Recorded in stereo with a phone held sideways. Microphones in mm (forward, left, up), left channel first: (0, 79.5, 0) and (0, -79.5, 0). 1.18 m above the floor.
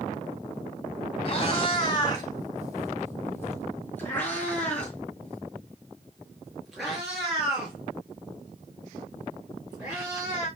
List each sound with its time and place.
1.2 s a cat meowing: 35° left (ahead or behind), 2.5 m; by 10.5 s 10° right (ahead or behind), 7 m